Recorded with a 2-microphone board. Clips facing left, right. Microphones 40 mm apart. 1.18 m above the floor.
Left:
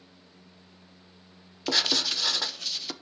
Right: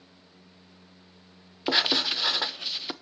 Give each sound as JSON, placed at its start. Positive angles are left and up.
{"t": 1.7, "sound": "writing", "side_deg": -20, "distance_m": 0.7}